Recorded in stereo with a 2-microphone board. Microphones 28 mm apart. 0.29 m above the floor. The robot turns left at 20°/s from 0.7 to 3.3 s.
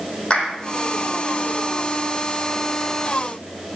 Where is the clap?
35° left (ahead or behind), 8.5 m.